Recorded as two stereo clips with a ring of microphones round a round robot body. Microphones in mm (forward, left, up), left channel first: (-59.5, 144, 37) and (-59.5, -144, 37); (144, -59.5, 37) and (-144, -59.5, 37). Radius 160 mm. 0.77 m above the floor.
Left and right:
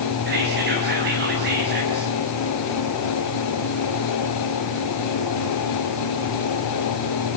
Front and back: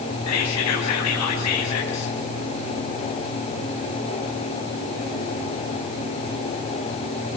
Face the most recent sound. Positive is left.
turn(degrees=-30)